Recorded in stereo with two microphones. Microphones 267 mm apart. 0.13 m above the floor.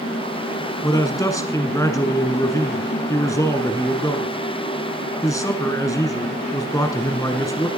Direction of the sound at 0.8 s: 10° left (ahead or behind).